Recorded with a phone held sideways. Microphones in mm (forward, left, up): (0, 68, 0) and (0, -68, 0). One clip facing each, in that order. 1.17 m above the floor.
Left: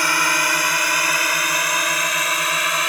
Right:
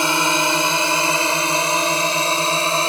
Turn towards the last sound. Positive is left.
turn(degrees=-30)  # may be behind; listen again after turning